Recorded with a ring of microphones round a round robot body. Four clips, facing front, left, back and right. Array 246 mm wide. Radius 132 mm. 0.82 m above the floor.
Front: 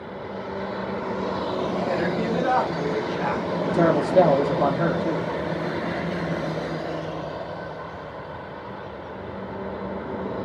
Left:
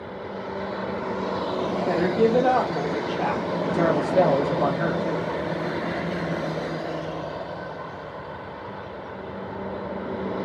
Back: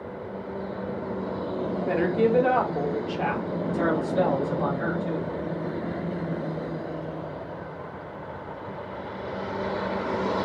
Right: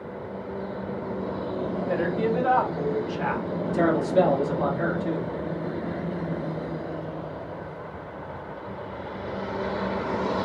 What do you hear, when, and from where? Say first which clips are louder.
1.9 s a woman speaking: left 5 dB, back 2 dB; 110° left, 1.7 m; by 3.5 s 135° left, 2 m
3.7 s a man speaking: even, front 6 dB; 25° left, 1.9 m